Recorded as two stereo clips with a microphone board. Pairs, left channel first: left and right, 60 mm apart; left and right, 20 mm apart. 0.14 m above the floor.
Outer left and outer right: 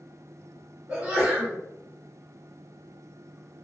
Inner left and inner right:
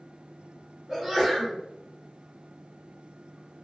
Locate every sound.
0.9 s a sneeze: 20° right (ahead or behind), 1.9 m